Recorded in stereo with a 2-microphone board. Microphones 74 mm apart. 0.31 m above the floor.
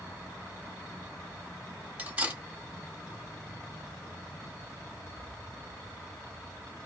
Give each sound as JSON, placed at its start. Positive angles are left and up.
{"t": 2.0, "sound": "cutlery clinking", "side_deg": -20, "distance_m": 1.0}